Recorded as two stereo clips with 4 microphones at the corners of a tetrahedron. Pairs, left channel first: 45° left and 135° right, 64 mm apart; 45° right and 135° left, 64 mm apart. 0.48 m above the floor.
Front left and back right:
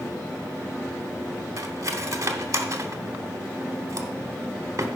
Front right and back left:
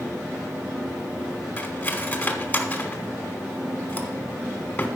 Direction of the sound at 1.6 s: 110° right.